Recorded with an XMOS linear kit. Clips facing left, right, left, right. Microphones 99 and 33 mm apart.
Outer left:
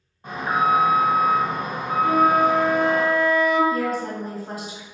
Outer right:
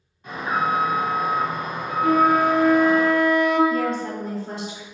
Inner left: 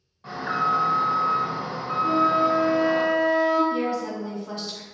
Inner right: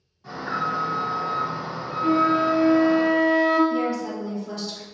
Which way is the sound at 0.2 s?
35° left (ahead or behind).